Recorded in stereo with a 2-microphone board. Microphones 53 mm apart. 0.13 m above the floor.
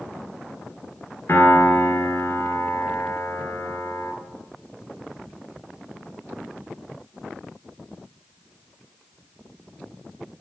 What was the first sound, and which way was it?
A piano, 45° left (ahead or behind).